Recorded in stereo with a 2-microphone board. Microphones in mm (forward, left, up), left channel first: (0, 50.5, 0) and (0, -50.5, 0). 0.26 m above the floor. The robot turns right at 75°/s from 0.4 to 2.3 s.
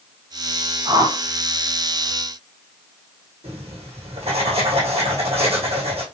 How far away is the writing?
About 2.5 m.